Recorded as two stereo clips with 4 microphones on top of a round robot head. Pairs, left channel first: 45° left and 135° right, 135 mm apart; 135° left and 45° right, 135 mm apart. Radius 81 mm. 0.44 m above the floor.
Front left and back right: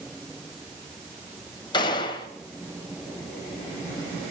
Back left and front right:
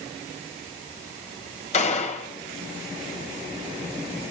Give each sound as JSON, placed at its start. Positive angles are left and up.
{"t": 1.7, "sound": "a gunshot", "azimuth_deg": 100, "distance_m": 3.0}